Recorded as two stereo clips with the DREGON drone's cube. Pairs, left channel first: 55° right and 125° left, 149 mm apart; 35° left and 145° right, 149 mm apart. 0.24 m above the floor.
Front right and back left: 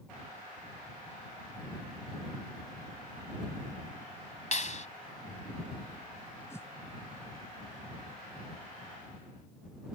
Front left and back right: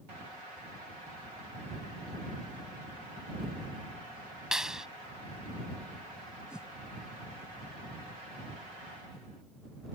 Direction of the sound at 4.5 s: 60° right.